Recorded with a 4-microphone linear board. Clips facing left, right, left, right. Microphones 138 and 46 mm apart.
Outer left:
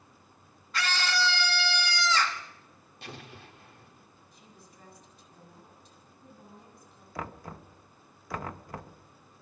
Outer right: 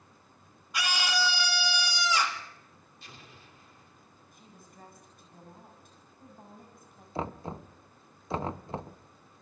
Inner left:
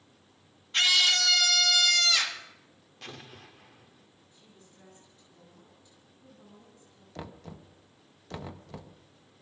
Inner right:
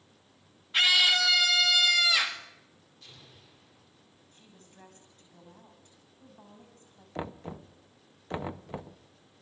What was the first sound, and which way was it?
A scream, 10° right (ahead or behind).